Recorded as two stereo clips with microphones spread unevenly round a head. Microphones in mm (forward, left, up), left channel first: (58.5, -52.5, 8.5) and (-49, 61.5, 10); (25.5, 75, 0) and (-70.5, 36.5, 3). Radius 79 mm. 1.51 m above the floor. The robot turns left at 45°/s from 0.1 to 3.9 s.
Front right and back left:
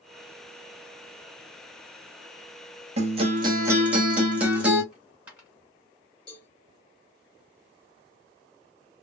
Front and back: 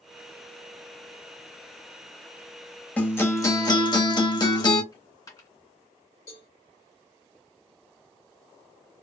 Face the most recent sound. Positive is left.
turn(degrees=5)